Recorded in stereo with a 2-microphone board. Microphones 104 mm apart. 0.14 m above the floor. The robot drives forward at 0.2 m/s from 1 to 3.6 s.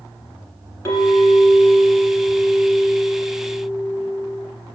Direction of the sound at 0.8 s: 25° left (ahead or behind).